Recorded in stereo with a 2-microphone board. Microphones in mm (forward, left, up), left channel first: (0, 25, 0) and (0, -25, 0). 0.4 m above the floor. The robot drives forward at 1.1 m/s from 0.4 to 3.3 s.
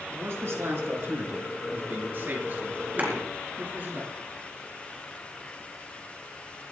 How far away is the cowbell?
I don't hear a cowbell.